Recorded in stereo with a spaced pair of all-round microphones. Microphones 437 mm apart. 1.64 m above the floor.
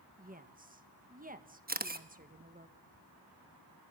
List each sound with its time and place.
0.2 s a woman speaking: 20° right (ahead or behind), 1.6 m
1.7 s a camera shutter: 20° right (ahead or behind), 1.3 m